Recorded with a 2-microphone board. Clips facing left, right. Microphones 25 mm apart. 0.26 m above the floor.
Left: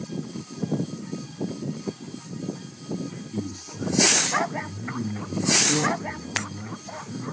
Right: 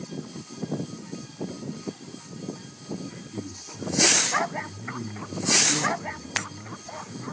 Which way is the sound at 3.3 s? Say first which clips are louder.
Left 5 dB; 40° left (ahead or behind).